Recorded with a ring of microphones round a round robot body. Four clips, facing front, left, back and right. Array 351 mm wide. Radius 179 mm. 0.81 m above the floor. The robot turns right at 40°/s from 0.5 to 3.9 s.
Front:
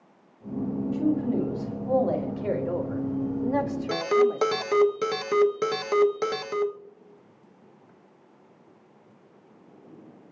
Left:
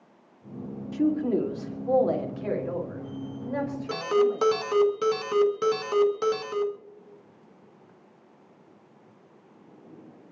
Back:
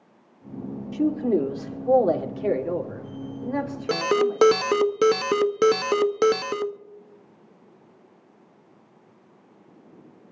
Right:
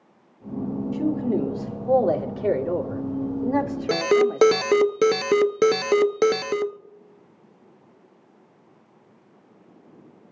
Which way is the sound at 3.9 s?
125° right.